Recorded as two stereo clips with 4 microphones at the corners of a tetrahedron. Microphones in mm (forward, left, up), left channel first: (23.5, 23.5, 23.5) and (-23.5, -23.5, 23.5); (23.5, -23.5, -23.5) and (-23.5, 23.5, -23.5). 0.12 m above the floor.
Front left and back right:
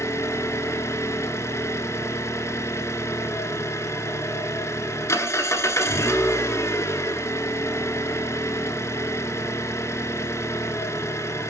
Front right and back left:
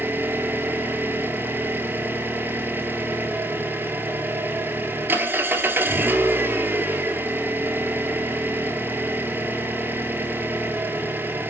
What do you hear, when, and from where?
0.0 s an engine running: 85° left, 1.1 m